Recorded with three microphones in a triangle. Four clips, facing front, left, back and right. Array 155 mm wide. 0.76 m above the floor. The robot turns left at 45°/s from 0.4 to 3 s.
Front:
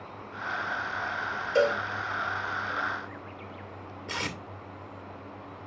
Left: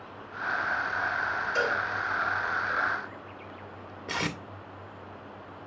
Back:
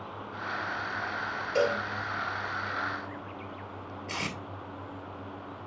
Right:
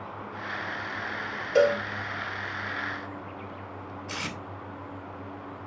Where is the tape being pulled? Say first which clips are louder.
Left 6 dB, front 2 dB; 85° left, 1.8 m.